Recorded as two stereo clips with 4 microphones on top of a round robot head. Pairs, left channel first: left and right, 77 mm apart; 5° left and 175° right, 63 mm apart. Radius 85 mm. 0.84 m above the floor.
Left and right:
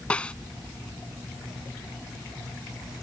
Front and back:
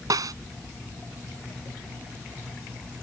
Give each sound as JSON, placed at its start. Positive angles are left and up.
{"t": 0.1, "sound": "a snare drum", "azimuth_deg": 170}